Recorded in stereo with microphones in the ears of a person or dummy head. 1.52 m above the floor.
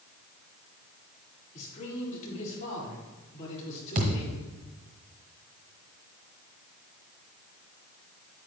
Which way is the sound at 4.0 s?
35° right (ahead or behind).